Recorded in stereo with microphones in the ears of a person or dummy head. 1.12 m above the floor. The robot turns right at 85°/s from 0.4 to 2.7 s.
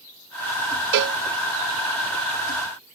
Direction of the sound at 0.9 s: 60° right (ahead or behind).